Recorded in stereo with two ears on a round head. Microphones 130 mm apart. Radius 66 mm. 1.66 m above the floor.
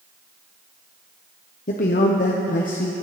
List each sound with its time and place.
1.7 s a man speaking: 60° left (ahead or behind), 0.9 m